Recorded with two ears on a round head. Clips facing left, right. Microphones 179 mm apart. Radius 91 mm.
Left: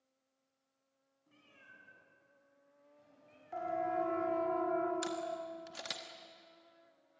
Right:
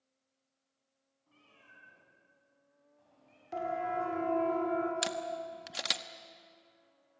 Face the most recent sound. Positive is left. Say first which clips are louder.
# right 2 dB
turn(degrees=-70)  # may be behind; listen again after turning